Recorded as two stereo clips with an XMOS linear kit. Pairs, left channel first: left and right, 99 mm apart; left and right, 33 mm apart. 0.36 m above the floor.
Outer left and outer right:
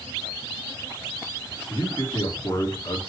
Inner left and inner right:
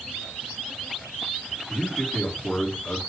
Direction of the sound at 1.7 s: 45° left (ahead or behind).